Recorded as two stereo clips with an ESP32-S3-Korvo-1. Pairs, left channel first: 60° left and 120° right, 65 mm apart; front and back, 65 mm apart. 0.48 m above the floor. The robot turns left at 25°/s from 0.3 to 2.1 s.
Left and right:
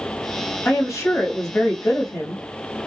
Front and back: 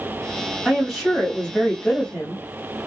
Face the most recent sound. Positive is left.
turn(degrees=60)